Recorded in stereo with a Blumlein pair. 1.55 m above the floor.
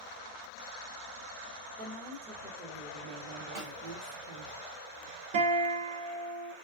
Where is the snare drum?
50° right, 1.3 m.